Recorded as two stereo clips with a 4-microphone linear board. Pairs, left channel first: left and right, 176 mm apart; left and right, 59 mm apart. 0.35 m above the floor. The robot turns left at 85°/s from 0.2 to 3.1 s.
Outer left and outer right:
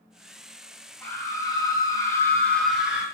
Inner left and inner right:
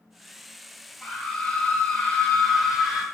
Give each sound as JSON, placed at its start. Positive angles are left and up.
{"t": 1.0, "sound": "a scream", "side_deg": 10, "distance_m": 0.8}